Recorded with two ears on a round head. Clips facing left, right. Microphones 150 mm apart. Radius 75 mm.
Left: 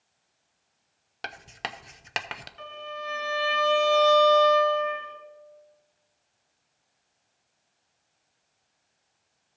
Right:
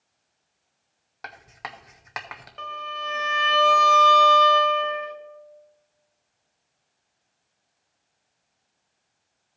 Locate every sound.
1.2 s writing: 30° left (ahead or behind), 0.5 m
2.6 s a violin: 60° right (ahead or behind), 1.1 m